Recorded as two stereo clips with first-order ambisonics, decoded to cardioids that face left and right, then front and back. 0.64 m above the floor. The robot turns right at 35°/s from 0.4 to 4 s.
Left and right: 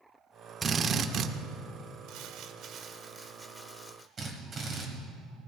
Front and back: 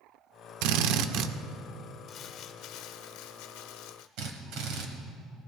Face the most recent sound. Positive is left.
turn(degrees=-155)